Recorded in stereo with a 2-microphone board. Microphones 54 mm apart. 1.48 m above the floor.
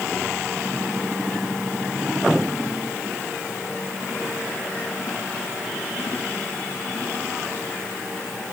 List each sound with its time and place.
Only background noise.